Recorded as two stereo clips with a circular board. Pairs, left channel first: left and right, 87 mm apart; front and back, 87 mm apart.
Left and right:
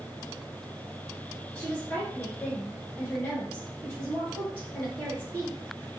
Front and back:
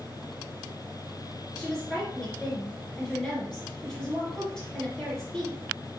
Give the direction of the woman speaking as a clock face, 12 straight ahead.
10 o'clock.